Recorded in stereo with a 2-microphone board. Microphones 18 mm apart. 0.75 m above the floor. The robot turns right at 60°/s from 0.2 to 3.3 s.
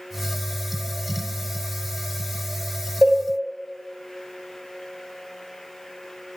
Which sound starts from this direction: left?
A cowbell, at 3.0 s.